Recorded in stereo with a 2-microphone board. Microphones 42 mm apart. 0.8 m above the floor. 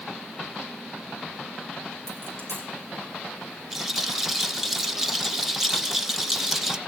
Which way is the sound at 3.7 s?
10° right (ahead or behind).